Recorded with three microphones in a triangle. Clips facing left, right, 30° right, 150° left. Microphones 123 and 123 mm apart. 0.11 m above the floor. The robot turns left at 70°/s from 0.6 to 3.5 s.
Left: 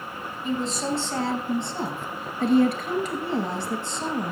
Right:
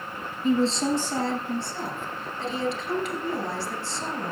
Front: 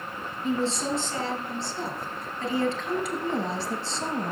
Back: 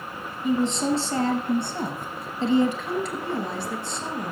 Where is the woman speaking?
135° right, 1.9 m; by 4.3 s 25° left, 1.9 m.